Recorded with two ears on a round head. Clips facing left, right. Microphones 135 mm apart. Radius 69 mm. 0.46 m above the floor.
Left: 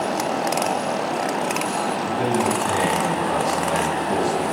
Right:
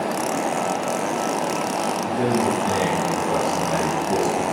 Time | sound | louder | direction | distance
2.0 | a man speaking | right 1 dB | 40° right (ahead or behind) | 4 m